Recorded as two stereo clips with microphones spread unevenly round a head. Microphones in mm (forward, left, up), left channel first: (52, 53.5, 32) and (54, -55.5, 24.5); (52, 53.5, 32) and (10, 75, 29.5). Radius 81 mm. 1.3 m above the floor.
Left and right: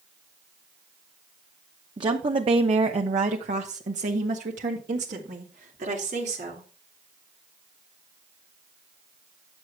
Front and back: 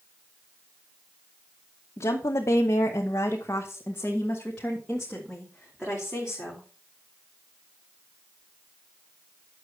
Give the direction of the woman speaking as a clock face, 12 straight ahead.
1 o'clock.